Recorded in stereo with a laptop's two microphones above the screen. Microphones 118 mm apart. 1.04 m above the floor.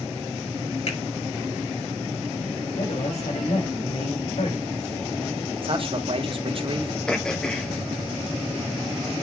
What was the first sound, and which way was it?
A finger snap, 70° left (ahead or behind).